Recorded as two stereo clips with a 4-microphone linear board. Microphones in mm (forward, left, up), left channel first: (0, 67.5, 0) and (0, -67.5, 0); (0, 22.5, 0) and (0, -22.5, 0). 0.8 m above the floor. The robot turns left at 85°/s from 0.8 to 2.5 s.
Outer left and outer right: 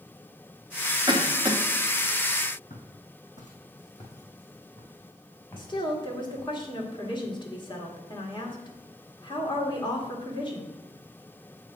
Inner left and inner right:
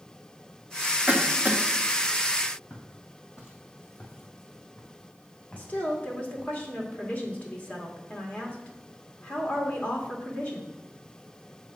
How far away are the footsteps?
About 2 m.